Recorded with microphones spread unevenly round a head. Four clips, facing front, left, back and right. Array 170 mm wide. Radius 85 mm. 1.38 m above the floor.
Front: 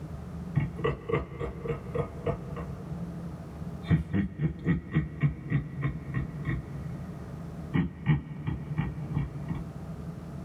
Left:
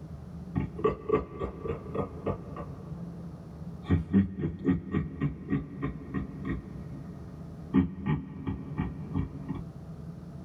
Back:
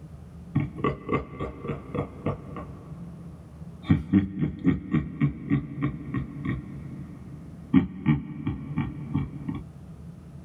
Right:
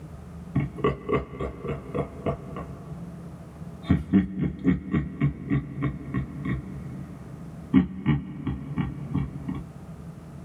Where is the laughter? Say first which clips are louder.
Right 3 dB, back 4 dB; 140° right, 2.5 m.